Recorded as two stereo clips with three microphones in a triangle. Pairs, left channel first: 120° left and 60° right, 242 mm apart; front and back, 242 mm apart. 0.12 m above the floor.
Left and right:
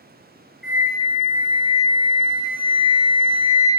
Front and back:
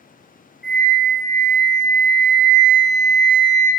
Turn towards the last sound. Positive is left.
turn(degrees=-35)